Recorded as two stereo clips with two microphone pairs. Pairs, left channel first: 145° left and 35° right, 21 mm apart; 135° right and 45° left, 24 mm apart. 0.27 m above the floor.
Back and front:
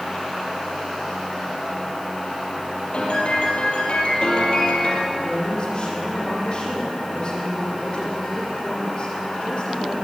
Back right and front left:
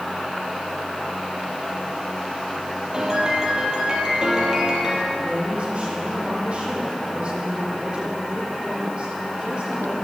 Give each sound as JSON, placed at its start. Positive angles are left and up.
{"t": 2.9, "sound": "a piano", "azimuth_deg": 105, "distance_m": 4.5}
{"t": 5.1, "sound": "a woman speaking", "azimuth_deg": 95, "distance_m": 9.0}